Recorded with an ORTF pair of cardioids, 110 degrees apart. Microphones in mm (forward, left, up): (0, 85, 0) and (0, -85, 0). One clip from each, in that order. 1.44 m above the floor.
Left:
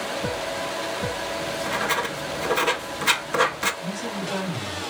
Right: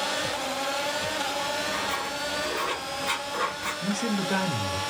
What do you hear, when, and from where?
1.4 s writing: 60° left, 0.8 m
3.8 s a man speaking: 45° right, 2 m